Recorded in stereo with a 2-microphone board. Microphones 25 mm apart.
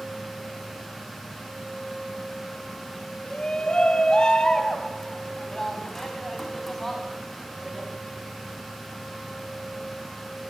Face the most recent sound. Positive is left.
turn(degrees=5)  # may be behind; listen again after turning